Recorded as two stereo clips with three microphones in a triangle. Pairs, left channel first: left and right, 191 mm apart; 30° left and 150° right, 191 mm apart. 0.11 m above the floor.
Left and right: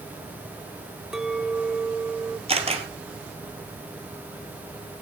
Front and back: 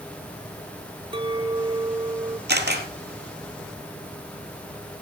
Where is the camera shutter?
145° right, 2.5 m.